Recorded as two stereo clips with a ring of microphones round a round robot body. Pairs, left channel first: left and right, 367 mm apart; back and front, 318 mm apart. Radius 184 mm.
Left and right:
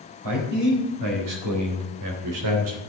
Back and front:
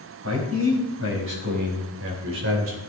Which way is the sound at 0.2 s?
55° right.